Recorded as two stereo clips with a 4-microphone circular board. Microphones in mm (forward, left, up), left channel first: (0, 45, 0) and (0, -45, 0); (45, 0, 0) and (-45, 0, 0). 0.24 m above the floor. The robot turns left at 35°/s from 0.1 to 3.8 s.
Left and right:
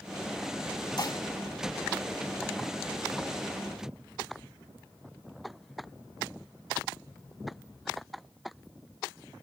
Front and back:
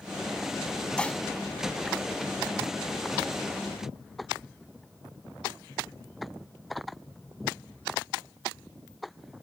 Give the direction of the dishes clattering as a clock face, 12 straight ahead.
9 o'clock.